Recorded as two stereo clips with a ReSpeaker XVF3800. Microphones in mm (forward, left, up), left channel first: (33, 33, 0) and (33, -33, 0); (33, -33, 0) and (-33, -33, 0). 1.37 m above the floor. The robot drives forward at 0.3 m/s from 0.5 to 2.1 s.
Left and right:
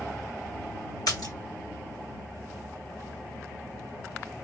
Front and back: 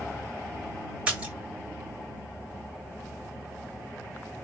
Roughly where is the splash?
Left.